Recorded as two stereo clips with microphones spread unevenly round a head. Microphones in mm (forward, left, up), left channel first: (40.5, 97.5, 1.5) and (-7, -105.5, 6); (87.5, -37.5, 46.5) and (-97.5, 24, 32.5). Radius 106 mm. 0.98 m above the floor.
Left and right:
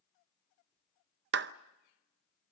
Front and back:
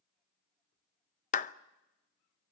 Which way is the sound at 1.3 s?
70° right.